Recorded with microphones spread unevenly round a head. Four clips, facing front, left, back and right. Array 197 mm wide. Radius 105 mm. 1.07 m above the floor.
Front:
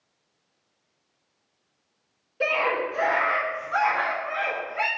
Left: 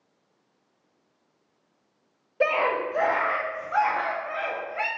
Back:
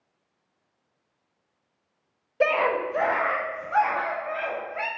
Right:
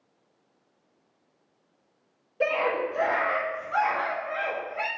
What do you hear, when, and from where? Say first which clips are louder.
2.4 s a scream: left 2 dB, back 2 dB; 130° left, 0.5 m; by 4.9 s 135° left, 2.5 m